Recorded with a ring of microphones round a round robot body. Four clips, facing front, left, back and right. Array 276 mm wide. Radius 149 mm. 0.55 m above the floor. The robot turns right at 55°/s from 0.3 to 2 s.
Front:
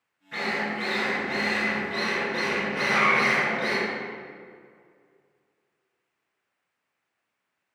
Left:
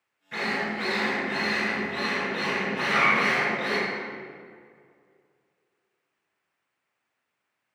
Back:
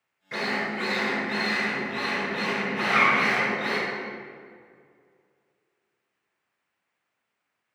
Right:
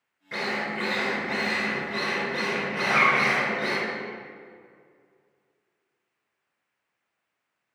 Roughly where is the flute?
I don't hear a flute.